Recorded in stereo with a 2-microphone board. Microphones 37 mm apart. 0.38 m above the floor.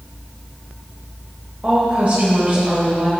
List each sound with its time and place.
1.6 s a woman speaking: 40° right (ahead or behind), 1.3 m